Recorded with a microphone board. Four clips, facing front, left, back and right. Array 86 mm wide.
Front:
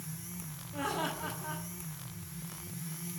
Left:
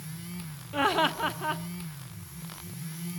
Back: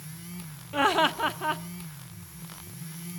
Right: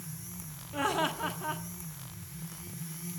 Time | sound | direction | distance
0.7 | laughter | 160° left | 1.1 m